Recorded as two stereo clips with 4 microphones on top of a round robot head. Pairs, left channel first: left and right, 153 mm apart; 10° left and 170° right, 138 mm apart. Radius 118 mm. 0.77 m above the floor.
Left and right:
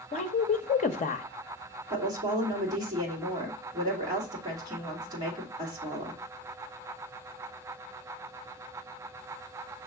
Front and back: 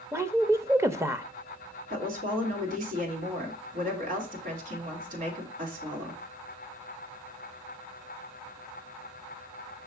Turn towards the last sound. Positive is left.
turn(degrees=-155)